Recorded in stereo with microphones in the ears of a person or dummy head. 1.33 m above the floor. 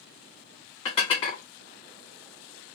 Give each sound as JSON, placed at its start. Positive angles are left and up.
{"t": 0.8, "sound": "dishes clattering", "side_deg": 35, "distance_m": 1.2}